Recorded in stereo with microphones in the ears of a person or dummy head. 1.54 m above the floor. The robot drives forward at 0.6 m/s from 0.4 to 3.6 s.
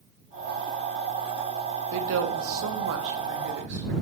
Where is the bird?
No bird in this recording.